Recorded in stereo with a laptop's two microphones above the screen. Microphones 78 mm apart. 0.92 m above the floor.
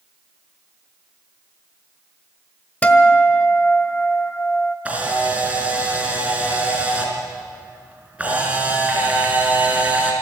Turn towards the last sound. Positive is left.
turn(degrees=-20)  # may be behind; listen again after turning